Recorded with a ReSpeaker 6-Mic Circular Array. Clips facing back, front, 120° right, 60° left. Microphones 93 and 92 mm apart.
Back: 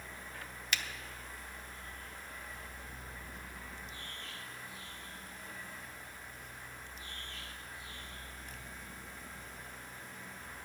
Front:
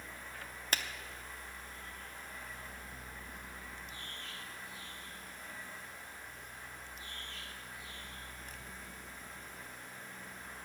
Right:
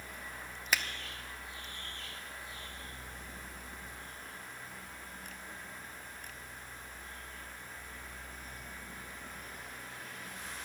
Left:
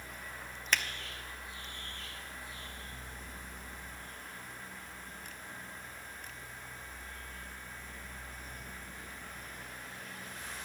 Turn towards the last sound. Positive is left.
turn(degrees=-35)